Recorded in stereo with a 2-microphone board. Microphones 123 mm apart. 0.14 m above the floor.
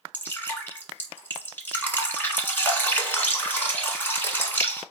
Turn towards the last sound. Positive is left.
turn(degrees=15)  # may be behind; listen again after turning